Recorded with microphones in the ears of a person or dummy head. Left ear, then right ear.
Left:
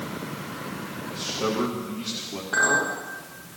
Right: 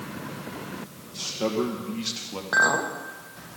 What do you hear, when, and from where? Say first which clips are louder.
1.1 s a man speaking: even; 80° right, 1.9 m; by 2.4 s 40° right (ahead or behind), 1.5 m
2.5 s a clink: even; 65° right (ahead or behind), 1.3 m